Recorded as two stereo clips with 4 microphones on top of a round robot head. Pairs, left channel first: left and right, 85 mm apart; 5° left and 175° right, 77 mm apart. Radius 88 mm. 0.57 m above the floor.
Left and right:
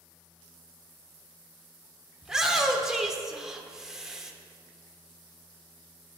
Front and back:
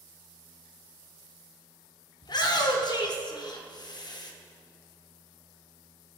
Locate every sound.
2.2 s a shout: 5° right, 1.7 m